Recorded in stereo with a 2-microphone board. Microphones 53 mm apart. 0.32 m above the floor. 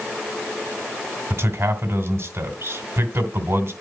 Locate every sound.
1.3 s a man speaking: 60° right (ahead or behind), 2.5 m